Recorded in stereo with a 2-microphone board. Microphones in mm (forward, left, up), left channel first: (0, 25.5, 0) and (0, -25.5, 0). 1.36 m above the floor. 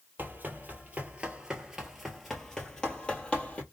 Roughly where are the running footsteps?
Right.